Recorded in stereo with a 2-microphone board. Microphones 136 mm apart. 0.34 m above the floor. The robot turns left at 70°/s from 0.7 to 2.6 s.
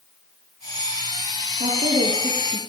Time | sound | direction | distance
1.6 | a woman speaking | 95° right | 4.5 m